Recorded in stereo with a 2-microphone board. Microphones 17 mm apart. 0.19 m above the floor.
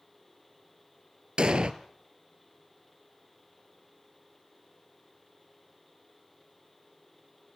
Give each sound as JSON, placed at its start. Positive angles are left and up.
{"t": 1.4, "sound": "an explosion", "side_deg": -65, "distance_m": 1.4}